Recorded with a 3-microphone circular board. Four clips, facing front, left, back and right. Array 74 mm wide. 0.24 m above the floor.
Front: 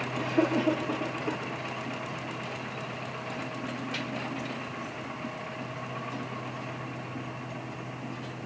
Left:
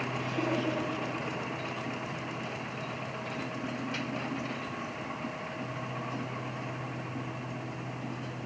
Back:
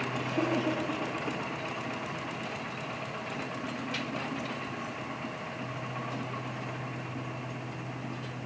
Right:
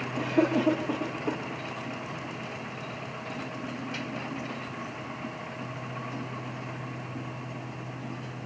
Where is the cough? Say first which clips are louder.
Right 9 dB, front 5 dB; 75° right, 6.5 m.